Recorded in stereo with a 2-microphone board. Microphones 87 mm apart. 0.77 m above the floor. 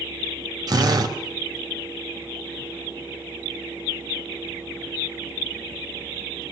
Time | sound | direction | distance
0.7 | a drill | 50° right (ahead or behind) | 4 m